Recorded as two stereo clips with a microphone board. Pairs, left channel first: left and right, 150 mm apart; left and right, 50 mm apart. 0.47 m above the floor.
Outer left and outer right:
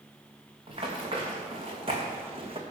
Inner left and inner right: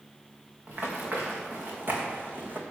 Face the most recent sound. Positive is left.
turn(degrees=-45)  # may be behind; listen again after turning